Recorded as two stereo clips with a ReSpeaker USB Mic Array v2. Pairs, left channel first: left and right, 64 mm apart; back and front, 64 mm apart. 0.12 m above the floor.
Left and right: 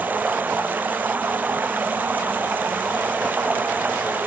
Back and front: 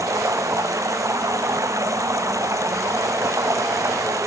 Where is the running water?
30° right.